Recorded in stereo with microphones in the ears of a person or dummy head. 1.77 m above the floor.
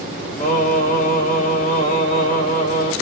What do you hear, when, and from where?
0.4 s singing: 50° left (ahead or behind), 0.8 m